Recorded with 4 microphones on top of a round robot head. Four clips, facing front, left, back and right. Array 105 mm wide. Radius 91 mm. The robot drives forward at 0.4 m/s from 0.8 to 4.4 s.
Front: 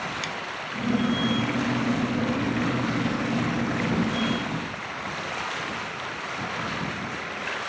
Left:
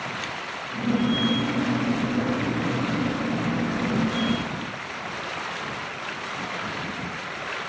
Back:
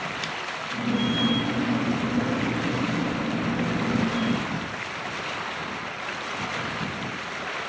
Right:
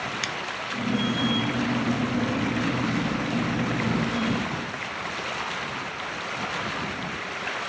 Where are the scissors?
90° right.